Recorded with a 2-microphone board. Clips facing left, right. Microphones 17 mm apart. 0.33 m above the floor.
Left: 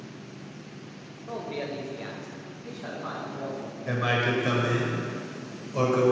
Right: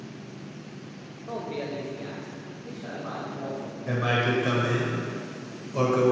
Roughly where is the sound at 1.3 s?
Centre.